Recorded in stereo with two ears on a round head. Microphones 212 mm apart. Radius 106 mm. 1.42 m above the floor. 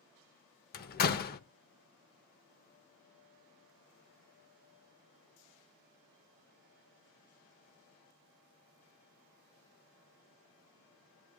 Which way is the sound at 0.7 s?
40° left (ahead or behind).